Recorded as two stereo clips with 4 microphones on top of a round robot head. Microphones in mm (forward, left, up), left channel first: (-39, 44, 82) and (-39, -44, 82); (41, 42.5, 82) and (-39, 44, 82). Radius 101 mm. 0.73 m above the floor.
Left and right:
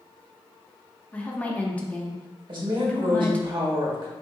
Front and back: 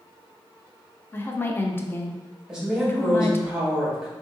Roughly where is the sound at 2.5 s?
Right.